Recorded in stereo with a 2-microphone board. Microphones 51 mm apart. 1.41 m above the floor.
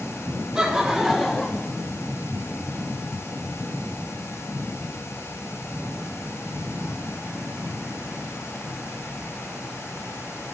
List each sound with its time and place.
0.6 s laughter: 15° right (ahead or behind), 2 m; by 1.7 s 20° left (ahead or behind), 1.2 m